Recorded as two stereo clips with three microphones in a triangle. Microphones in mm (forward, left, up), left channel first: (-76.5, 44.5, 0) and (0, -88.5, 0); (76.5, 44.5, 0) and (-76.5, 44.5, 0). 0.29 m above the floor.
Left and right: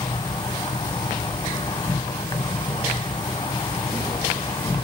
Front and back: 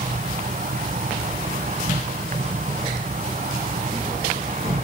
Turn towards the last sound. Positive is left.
turn(degrees=175)